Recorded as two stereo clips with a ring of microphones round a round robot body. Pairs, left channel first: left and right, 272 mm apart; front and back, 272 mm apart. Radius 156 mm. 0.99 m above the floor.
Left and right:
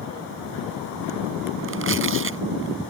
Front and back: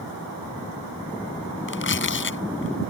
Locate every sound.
1.7 s tearing paper: 45° right